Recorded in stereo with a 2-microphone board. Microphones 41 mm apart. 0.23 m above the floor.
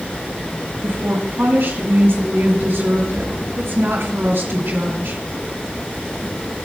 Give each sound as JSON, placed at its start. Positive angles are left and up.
{"t": 0.8, "sound": "a woman speaking", "side_deg": -75, "distance_m": 5.0}